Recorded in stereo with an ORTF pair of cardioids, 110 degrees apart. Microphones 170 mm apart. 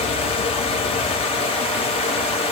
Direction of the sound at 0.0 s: 35° left.